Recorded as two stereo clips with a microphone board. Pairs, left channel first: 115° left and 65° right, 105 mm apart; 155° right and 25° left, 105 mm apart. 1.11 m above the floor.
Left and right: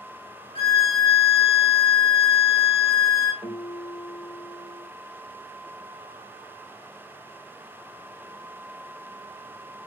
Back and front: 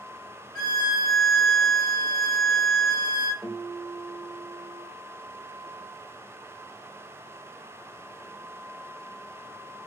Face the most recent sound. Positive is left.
turn(degrees=115)